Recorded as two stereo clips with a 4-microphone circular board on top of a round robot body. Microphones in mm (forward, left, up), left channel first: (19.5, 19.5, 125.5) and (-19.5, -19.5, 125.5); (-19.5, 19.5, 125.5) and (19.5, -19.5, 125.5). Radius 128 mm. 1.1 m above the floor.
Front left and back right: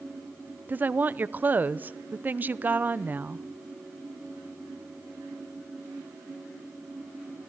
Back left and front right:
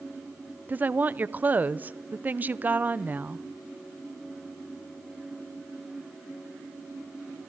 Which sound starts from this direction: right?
A woman speaking, at 0.7 s.